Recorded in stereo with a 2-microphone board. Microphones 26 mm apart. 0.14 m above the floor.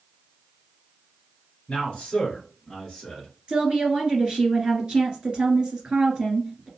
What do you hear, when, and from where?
1.7 s a man speaking: 40° left (ahead or behind), 1.8 m; by 3.3 s 10° left (ahead or behind), 1.9 m
3.5 s a woman speaking: 40° right (ahead or behind), 2.0 m